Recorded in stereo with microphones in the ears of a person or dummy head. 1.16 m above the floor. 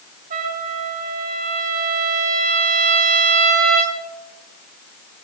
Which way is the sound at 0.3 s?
50° right (ahead or behind).